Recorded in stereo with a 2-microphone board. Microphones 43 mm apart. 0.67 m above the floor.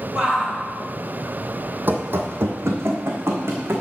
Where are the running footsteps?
45° right (ahead or behind), 1.4 m; by 3.8 s 75° right (ahead or behind), 2.5 m.